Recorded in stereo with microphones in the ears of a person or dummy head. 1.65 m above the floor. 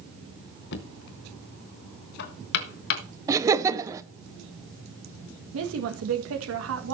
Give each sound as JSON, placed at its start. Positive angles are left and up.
{"t": 0.7, "sound": "knocking", "side_deg": 55, "distance_m": 1.3}
{"t": 3.3, "sound": "laughter", "side_deg": -20, "distance_m": 1.2}
{"t": 5.5, "sound": "a woman speaking", "side_deg": -75, "distance_m": 1.6}